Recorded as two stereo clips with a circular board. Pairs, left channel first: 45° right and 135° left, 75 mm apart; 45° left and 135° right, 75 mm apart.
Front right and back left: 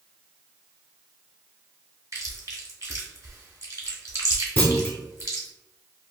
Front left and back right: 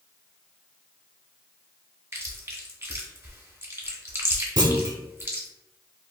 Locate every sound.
2.1 s chewing: 170° left, 1.0 m
4.6 s a clunk: 110° right, 0.6 m